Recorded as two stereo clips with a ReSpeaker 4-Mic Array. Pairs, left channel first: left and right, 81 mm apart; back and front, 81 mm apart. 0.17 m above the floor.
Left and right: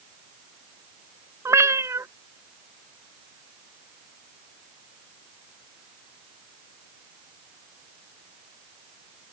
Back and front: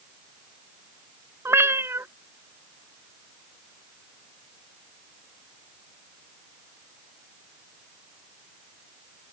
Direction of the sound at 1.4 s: 50° right.